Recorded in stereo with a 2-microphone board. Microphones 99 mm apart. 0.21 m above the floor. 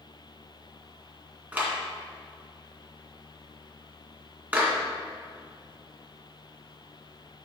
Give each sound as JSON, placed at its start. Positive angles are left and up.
{"t": 1.5, "sound": "a clap", "side_deg": -15, "distance_m": 2.0}